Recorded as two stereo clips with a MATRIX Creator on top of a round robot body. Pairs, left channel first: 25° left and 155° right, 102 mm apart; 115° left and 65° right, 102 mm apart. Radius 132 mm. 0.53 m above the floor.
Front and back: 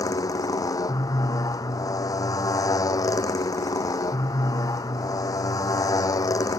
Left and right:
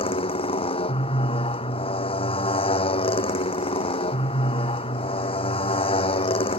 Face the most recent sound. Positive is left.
turn(degrees=80)